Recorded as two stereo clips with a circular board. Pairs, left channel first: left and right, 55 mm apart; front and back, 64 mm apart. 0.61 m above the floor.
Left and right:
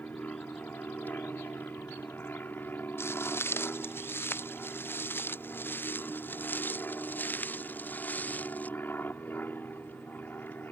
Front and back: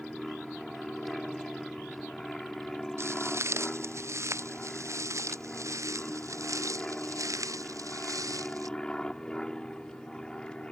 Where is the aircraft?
85° left; by 10.7 s 70° left.